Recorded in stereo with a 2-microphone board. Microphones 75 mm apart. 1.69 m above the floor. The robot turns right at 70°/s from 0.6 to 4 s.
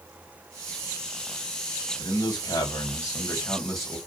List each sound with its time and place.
2.0 s a man speaking: 55° left, 1.6 m; by 4.0 s 165° right, 1.6 m